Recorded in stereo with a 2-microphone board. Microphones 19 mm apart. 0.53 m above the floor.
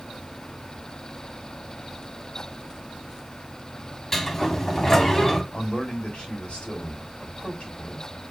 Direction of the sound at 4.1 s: 20° left (ahead or behind).